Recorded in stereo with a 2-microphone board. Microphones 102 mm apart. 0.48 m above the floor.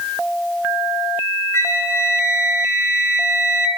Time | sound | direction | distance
1.5 | a flute | 25° left (ahead or behind) | 3.5 m